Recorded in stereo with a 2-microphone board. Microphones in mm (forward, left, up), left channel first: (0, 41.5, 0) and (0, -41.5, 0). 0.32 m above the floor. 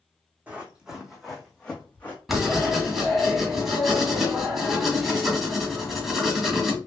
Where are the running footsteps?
15° right (ahead or behind), 1.3 m; by 2.2 s 20° left (ahead or behind), 1.5 m.